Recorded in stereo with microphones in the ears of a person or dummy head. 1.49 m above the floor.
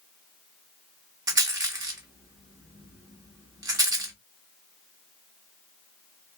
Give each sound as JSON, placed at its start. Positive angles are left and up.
{"t": 1.3, "sound": "a rattle", "side_deg": -20, "distance_m": 0.8}